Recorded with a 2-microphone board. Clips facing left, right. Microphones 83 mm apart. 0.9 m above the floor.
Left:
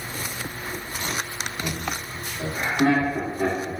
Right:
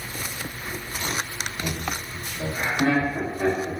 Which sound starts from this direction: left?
Laughter, at 1.6 s.